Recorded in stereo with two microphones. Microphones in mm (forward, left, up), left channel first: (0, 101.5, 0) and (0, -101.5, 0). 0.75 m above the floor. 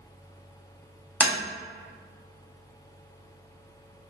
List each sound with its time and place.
1.2 s tapping: 5° left (ahead or behind), 0.6 m